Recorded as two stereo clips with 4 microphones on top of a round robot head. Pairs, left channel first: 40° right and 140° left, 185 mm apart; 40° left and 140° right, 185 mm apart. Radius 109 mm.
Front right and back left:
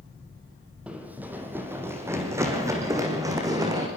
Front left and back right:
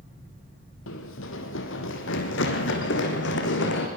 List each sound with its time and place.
0.9 s running footsteps: 60° left, 3.5 m; by 3.9 s 70° left, 6 m